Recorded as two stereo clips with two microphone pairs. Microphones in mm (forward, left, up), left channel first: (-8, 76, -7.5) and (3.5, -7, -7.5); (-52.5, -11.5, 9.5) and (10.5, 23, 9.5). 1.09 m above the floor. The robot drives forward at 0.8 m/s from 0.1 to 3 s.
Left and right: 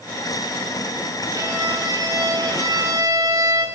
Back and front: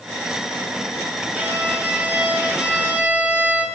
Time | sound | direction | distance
1.3 | a violin | 35° right | 8.5 m